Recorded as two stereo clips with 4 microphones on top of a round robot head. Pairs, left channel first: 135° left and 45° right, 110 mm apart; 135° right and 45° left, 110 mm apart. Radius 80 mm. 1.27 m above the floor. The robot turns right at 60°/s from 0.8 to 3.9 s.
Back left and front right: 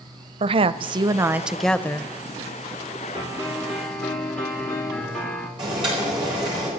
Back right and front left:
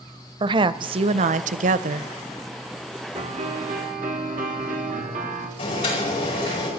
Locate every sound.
0.4 s a woman speaking: 5° right, 0.6 m; by 2.1 s 75° left, 0.6 m
3.1 s a piano: 5° left, 3 m; by 5.5 s 50° left, 3 m
5.6 s boiling: 90° right, 8 m